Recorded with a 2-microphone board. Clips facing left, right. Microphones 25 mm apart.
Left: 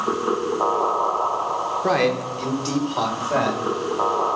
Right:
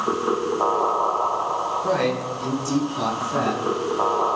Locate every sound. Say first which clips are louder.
1.8 s a man speaking: left 5 dB; 55° left (ahead or behind), 1.9 m; by 3.6 s 65° left (ahead or behind), 3 m